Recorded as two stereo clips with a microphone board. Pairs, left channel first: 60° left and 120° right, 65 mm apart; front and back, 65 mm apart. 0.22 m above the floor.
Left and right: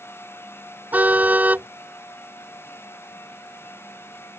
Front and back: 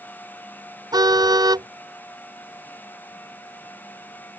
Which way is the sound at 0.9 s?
175° left.